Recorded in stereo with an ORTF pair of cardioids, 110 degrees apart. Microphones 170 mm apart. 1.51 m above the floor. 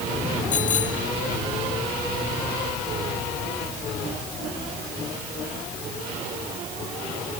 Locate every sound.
0.5 s a bicycle bell: 50° left